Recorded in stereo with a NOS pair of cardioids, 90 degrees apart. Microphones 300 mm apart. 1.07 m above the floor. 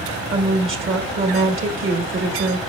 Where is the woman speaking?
45° right, 1.4 m.